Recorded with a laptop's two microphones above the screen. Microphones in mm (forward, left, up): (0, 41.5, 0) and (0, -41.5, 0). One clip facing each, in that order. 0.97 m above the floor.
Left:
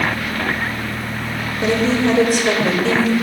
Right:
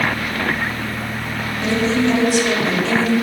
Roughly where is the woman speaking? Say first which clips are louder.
Left 1 dB; left.